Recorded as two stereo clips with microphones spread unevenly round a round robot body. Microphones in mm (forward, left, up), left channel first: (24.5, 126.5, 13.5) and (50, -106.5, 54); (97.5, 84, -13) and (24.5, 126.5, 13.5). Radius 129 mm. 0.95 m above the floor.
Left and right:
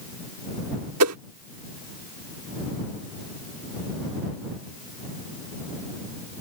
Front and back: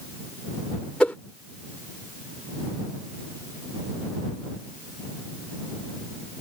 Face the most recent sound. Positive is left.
turn(degrees=-115)